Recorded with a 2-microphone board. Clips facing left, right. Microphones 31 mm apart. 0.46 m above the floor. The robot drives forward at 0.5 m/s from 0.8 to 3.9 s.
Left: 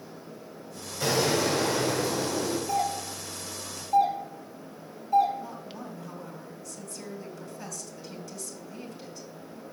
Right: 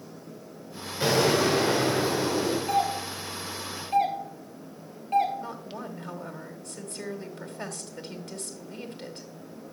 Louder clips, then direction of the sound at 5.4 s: Right 2 dB; 45° right (ahead or behind).